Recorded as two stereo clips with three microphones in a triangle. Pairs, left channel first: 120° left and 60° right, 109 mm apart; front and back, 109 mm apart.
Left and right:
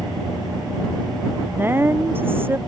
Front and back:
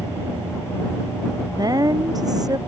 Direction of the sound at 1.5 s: 130° right.